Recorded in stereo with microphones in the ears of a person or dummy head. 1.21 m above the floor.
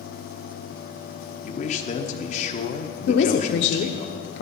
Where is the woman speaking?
55° left (ahead or behind), 0.6 m.